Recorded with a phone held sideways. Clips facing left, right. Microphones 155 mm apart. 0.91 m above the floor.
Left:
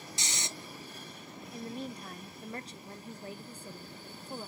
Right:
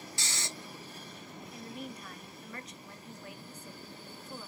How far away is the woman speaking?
About 0.7 m.